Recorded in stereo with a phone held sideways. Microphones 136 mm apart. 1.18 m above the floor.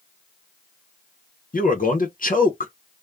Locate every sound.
1.5 s a man speaking: 70° left (ahead or behind), 0.6 m